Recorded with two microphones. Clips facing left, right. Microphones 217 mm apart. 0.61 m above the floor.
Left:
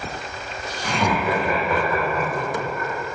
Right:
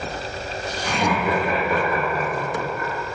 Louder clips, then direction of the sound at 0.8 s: Even; 20° right (ahead or behind).